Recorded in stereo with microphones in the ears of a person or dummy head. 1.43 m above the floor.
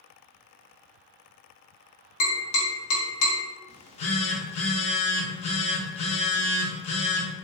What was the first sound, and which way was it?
Tapping, 70° left (ahead or behind).